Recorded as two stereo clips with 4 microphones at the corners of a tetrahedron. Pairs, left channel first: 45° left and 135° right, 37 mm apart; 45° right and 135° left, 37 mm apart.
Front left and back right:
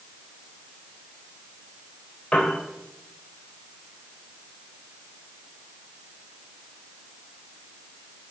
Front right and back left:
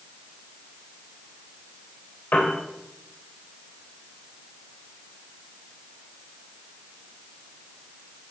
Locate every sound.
2.3 s a piano: 25° right, 3.5 m